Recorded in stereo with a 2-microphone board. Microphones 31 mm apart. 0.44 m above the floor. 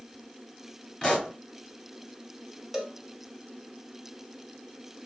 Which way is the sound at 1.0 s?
15° left (ahead or behind).